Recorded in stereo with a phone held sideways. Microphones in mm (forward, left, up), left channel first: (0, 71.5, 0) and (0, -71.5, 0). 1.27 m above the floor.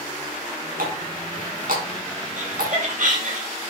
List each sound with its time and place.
0.8 s a running tap: 85° right, 5.5 m
2.4 s laughter: 70° right (ahead or behind), 7.5 m